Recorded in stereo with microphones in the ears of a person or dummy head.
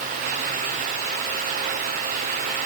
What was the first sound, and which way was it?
Only background noise.